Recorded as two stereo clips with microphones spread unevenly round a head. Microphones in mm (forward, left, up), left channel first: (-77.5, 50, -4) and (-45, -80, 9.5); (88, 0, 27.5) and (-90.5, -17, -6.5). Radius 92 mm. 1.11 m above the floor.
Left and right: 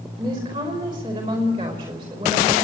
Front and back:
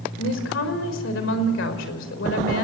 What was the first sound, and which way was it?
A woman speaking, 10° right.